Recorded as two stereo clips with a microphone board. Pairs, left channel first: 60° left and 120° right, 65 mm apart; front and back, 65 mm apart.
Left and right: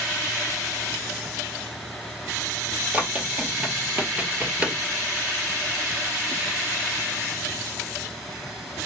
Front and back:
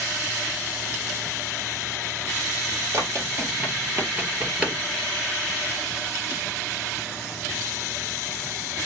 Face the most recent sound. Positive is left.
turn(degrees=-140)